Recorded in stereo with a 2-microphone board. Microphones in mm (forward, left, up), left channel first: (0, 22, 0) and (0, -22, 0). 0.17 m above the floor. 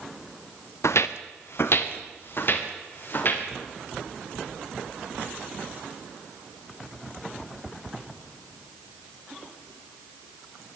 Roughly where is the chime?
I don't hear a chime.